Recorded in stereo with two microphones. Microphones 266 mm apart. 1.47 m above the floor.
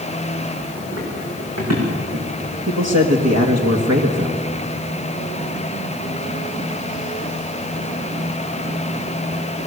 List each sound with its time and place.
0.8 s running footsteps: 70° right (ahead or behind), 8.5 m
2.7 s a man speaking: 75° right (ahead or behind), 1.8 m